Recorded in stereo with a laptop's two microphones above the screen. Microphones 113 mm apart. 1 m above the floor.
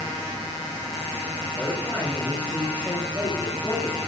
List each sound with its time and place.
1.6 s a man speaking: 10° left (ahead or behind), 6.5 m